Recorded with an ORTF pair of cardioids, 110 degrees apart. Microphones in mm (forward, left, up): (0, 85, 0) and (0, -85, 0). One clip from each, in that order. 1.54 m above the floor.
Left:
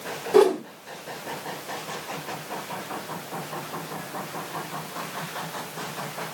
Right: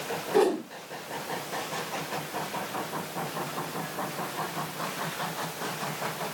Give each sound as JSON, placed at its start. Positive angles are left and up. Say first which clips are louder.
{"t": 0.3, "sound": "a whoosh", "louder": "left 6 dB", "azimuth_deg": 60, "distance_m": 4.5}